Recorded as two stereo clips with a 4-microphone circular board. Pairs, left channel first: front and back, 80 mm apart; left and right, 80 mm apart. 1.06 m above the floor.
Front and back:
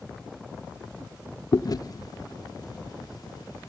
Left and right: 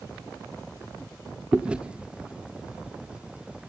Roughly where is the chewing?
Ahead.